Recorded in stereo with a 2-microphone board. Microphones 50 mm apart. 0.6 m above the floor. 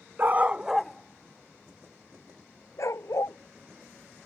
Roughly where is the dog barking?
Right.